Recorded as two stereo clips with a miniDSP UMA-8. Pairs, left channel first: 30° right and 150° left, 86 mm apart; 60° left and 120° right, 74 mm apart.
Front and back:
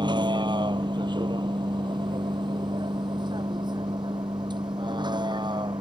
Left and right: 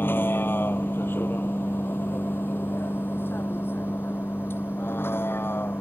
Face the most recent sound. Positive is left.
turn(degrees=120)